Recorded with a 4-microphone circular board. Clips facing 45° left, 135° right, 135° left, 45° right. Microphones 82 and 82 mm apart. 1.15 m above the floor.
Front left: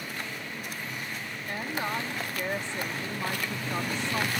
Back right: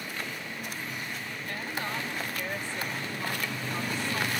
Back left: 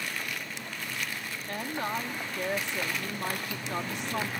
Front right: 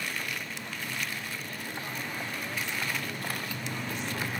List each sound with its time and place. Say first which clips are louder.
1.5 s a woman speaking: front left 3 dB, back left 6 dB; 110° left